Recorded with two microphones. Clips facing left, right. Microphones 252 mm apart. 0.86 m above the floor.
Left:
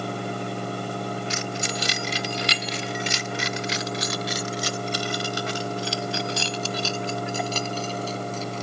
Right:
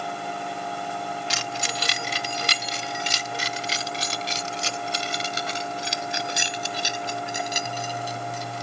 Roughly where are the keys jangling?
Right.